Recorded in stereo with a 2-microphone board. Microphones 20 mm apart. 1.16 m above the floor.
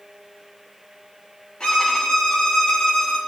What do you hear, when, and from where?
1.6 s a violin: 50° left (ahead or behind), 1.7 m